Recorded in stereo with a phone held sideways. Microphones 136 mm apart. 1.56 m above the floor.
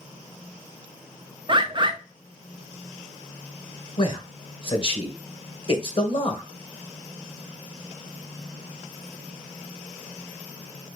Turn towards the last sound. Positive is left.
turn(degrees=40)  # may be behind; listen again after turning